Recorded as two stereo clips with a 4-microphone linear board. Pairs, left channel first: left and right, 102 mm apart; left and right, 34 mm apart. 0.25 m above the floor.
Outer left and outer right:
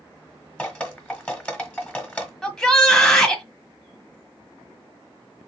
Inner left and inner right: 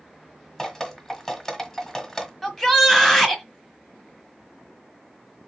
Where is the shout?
5° left (ahead or behind), 1.5 m.